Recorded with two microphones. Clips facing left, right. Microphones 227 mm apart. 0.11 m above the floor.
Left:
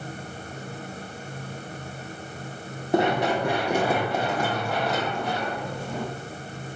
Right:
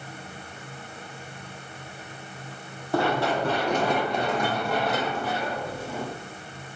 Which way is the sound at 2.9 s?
20° left (ahead or behind).